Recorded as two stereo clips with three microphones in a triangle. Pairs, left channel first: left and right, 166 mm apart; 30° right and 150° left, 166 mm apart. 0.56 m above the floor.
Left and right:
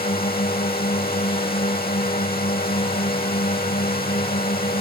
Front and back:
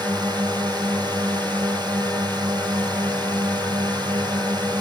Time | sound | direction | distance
0.0 | a drone | 85° left | ?